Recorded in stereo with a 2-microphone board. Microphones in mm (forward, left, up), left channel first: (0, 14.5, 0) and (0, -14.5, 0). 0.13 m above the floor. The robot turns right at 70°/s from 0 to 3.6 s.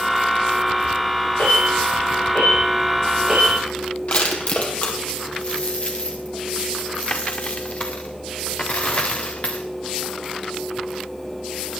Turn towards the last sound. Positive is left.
turn(degrees=40)  # may be behind; listen again after turning